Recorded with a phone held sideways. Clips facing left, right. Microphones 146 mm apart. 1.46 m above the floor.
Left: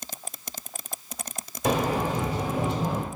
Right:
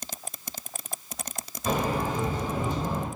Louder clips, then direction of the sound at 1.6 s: Left 2 dB; 90° left.